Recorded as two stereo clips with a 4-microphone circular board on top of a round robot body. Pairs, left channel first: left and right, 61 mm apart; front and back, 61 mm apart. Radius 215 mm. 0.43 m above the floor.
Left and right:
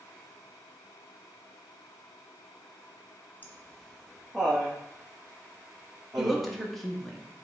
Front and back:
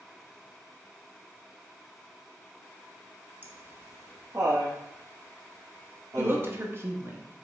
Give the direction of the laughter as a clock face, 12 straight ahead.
7 o'clock.